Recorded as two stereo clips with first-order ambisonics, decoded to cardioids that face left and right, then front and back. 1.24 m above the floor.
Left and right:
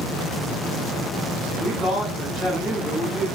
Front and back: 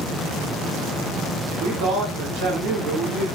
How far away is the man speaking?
About 1.7 m.